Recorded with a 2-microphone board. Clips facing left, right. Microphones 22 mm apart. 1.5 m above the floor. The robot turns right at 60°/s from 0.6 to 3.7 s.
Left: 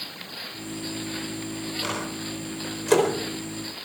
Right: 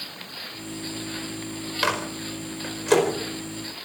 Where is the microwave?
70° right (ahead or behind), 4.5 m; by 3.1 s 5° left (ahead or behind), 4.5 m.